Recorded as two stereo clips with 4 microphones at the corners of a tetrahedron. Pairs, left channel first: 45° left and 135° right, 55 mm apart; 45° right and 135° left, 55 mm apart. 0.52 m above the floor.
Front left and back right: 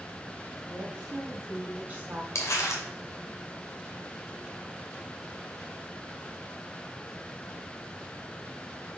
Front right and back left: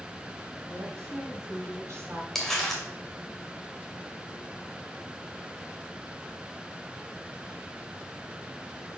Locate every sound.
0.7 s a woman speaking: 155° left, 4 m; by 2.2 s 170° left, 2.5 m
2.4 s crumpling: 40° left, 1.9 m